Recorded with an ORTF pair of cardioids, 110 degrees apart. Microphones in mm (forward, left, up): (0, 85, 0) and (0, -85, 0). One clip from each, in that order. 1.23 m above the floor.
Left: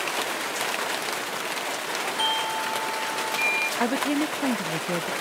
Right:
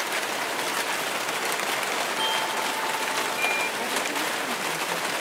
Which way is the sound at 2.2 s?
20° left.